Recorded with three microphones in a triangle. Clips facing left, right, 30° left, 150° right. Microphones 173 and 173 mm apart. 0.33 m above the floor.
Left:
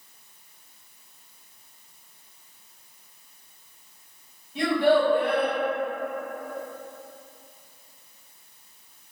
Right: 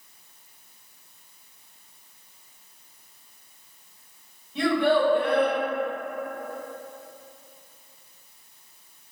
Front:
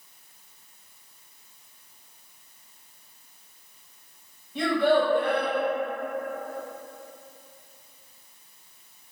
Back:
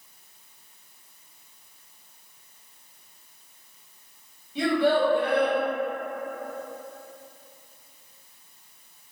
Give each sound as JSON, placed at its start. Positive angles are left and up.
{"t": 4.5, "sound": "a child speaking", "azimuth_deg": 5, "distance_m": 1.6}